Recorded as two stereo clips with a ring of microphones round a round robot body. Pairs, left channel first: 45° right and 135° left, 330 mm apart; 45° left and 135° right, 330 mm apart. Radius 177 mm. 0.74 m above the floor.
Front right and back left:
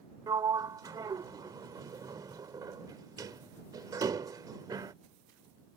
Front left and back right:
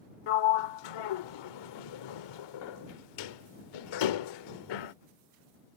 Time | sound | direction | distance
0.3 | a sliding door | 55° left | ?